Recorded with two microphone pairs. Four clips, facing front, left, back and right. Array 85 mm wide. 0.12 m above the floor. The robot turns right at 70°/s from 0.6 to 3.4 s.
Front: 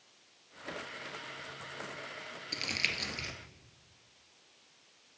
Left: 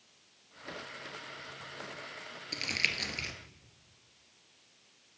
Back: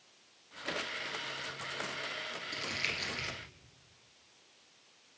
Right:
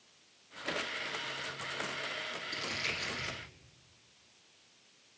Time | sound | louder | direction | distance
2.5 | crumpling | left 5 dB, front 3 dB | 50° left | 1.2 m